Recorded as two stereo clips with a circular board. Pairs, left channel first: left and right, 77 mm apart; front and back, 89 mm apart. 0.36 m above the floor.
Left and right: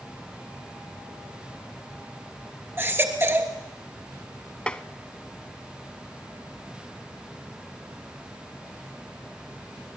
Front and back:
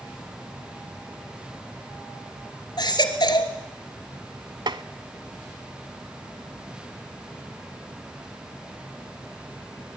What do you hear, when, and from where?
2.8 s a baby crying: 35° right, 2.5 m
4.7 s tapping: 165° left, 0.8 m